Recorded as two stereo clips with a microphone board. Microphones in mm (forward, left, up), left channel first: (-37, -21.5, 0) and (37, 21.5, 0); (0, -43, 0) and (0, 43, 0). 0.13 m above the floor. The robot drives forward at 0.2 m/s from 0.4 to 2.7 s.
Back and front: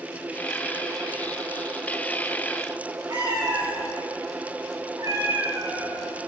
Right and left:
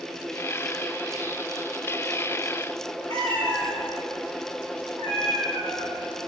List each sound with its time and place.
3.1 s a cat meowing: 75° left, 3 m